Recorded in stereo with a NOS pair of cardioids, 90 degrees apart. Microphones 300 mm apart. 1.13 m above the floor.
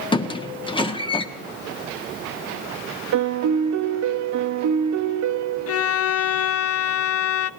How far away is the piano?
About 1.0 m.